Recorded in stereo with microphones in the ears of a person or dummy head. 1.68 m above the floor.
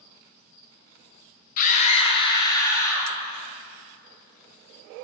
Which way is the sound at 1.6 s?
50° left (ahead or behind).